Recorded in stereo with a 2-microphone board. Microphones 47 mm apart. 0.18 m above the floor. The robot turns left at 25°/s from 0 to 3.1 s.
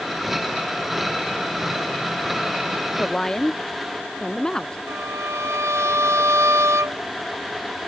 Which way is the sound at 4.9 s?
80° right.